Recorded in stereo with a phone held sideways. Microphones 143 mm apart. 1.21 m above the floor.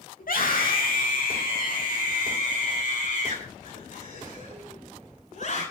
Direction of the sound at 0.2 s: 80° left.